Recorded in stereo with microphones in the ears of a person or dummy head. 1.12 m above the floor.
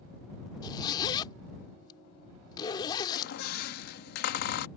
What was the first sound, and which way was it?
A zipper, 30° left (ahead or behind).